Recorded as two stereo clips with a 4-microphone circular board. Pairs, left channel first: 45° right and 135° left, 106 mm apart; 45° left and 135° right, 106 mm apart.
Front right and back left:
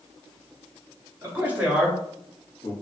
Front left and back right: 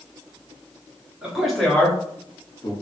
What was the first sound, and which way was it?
A man speaking, 160° left.